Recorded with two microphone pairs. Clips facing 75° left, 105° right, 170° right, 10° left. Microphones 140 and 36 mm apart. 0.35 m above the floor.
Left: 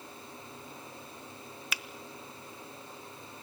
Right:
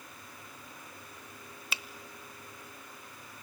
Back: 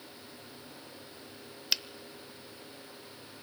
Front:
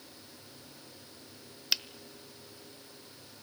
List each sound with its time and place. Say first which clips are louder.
1.7 s a finger snap: right 1 dB, even; 80° right, 0.7 m